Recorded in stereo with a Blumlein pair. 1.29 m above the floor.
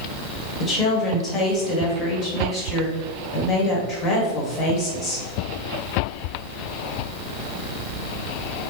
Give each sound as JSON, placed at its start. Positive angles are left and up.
{"t": 0.6, "sound": "a woman speaking", "azimuth_deg": 25, "distance_m": 2.0}